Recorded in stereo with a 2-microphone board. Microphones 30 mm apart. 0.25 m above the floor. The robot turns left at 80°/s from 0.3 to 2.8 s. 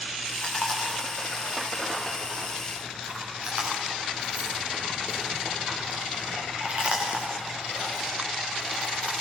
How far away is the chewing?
About 9 m.